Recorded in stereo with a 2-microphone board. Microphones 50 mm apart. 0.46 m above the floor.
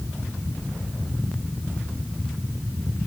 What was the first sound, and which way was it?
Only background noise.